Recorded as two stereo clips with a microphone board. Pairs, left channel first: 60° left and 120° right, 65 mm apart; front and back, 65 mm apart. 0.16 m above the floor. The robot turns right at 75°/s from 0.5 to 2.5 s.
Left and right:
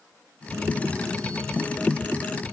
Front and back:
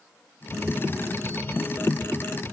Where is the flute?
No flute in this recording.